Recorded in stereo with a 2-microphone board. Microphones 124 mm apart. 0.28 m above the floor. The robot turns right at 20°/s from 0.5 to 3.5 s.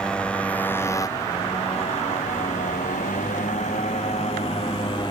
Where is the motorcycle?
5° left (ahead or behind); by 5.1 s 35° left (ahead or behind).